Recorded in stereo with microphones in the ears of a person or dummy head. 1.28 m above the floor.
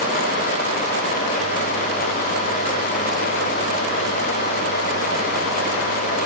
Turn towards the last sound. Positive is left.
No sound to turn to.